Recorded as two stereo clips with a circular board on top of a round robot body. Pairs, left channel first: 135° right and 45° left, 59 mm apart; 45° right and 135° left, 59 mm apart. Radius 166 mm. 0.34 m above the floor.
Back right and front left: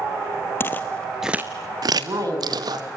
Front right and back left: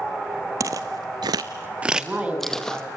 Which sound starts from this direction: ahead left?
A woman speaking, at 1.9 s.